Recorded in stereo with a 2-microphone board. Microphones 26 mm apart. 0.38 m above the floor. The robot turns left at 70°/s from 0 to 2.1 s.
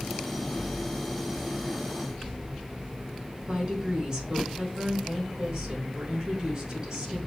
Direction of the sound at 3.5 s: 30° right (ahead or behind).